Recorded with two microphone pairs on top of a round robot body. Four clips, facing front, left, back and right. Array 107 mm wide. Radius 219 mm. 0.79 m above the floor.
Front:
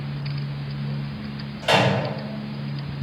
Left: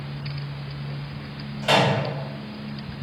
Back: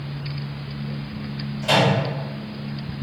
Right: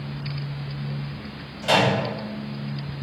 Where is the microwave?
30° left, 1.5 m.